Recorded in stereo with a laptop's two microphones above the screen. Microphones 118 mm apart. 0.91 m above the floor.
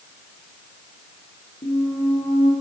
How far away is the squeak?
About 3 m.